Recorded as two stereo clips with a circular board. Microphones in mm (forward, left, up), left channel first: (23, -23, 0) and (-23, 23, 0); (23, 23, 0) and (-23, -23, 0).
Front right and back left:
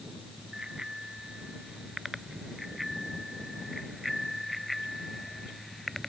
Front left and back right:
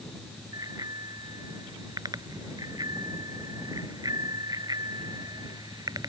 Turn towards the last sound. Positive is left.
turn(degrees=-130)